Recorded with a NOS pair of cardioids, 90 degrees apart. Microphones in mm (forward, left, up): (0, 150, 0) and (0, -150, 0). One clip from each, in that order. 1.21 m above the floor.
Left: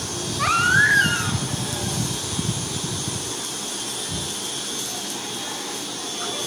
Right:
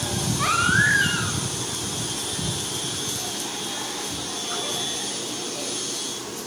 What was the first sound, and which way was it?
A baby crying, 20° left.